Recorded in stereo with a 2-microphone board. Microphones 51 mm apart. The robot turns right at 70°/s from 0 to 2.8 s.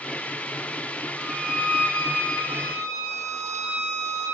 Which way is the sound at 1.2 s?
165° left.